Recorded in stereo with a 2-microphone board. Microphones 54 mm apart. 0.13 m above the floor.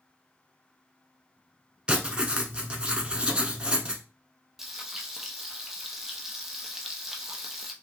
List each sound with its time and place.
1.9 s writing: 20° right (ahead or behind), 0.7 m
4.6 s frying: 5° right (ahead or behind), 0.6 m